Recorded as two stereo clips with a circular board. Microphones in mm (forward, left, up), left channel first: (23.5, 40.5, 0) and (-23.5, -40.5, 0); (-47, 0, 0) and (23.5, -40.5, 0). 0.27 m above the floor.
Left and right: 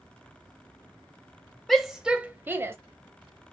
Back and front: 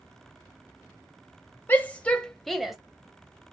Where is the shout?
145° left, 1.1 m; by 2.8 s 110° right, 1.2 m.